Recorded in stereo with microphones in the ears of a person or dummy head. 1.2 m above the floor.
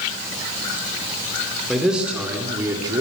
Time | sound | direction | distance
1.7 | a man speaking | centre (ahead or behind) | 3 m